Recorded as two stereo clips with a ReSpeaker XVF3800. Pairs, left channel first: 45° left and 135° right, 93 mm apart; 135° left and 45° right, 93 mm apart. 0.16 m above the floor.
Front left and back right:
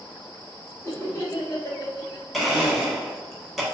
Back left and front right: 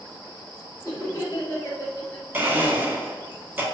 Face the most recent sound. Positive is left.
turn(degrees=-50)